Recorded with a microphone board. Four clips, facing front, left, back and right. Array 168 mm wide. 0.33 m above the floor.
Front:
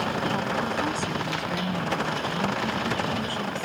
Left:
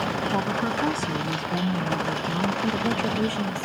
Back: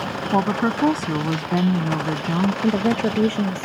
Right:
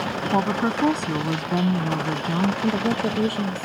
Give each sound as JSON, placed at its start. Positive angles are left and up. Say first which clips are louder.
{"t": 0.3, "sound": "a woman speaking", "louder": "right 7 dB, back 7 dB", "azimuth_deg": -150}
{"t": 2.6, "sound": "a woman speaking", "louder": "right 2 dB, back 8 dB", "azimuth_deg": -160}